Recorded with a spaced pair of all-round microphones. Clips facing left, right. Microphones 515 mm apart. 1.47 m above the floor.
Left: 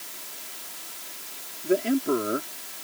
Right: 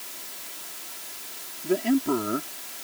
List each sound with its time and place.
1.6 s a man speaking: 20° right (ahead or behind)